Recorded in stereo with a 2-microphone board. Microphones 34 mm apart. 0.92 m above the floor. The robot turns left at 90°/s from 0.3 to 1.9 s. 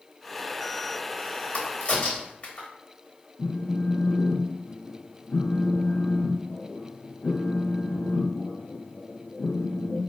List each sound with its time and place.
1.5 s a crack: 50° left (ahead or behind), 0.9 m; by 2.7 s 35° left (ahead or behind), 0.9 m
3.4 s a phone buzzing: 85° left, 0.6 m